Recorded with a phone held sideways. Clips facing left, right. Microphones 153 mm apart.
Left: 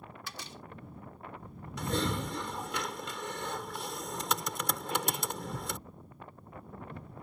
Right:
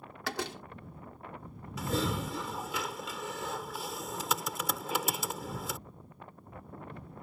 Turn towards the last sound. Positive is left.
turn(degrees=-5)  # may be behind; listen again after turning